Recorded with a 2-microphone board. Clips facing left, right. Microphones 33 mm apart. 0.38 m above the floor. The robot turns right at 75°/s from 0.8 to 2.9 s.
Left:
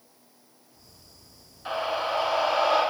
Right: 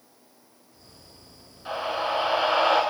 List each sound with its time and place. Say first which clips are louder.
1.6 s a scream: even; 165° left, 4.5 m; by 2.8 s 110° right, 4.5 m